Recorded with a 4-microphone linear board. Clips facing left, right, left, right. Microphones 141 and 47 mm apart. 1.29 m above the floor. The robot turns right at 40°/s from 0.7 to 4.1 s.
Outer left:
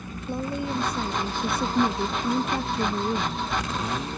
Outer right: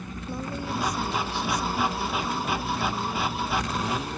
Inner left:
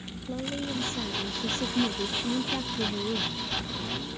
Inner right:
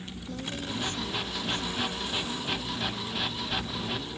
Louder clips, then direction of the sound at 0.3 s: Outer left 4 dB, inner left 4 dB; 20° left.